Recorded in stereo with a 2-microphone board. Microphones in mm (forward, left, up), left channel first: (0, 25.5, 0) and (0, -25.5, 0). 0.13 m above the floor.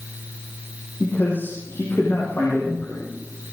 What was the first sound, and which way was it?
A man speaking, 45° left (ahead or behind).